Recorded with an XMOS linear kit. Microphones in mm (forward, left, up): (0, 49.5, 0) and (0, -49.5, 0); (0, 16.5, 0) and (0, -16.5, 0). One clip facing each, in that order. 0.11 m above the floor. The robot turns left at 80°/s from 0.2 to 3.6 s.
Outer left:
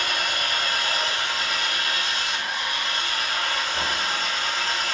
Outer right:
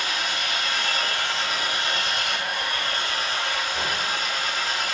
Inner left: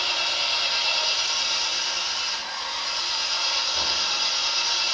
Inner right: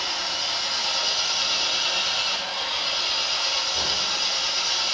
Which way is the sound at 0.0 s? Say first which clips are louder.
Outer left 1 dB, inner left 3 dB; 100° left.